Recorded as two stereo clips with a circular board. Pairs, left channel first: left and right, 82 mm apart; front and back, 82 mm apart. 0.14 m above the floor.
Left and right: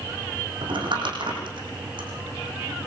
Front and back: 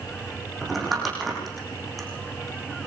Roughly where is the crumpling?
Right.